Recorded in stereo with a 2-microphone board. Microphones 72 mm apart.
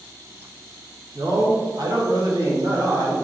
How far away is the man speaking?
About 0.7 m.